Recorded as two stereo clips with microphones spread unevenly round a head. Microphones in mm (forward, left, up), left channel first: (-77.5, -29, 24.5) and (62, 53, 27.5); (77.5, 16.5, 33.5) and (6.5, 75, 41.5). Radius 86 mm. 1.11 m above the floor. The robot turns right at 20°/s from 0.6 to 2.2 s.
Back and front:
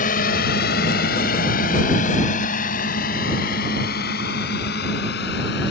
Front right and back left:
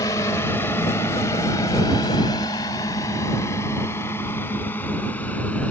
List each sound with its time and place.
0.0 s a drone: 105° right; by 5.7 s 120° right